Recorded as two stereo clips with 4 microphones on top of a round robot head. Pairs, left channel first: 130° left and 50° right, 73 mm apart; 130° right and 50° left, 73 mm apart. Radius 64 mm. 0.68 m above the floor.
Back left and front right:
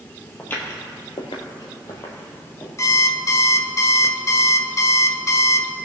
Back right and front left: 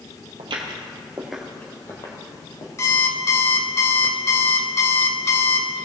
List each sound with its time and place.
0.4 s footsteps: 60° left, 1.6 m; by 2.7 s 170° right, 2.5 m
2.8 s an alarm clock: 175° left, 0.8 m